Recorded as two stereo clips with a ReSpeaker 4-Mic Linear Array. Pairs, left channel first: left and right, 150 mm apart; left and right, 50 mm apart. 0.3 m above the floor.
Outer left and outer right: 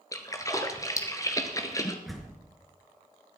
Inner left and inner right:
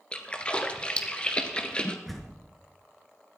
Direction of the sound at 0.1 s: 20° left (ahead or behind).